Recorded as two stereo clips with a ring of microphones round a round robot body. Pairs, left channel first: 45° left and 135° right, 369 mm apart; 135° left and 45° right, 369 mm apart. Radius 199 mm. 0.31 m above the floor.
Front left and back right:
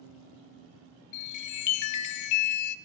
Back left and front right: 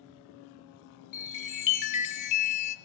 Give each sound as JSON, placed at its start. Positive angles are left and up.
{"t": 1.1, "sound": "a chime", "azimuth_deg": 90, "distance_m": 0.5}